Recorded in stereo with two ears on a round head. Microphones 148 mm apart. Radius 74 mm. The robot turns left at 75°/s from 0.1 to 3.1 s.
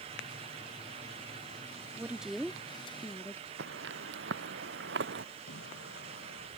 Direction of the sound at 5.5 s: 90° left.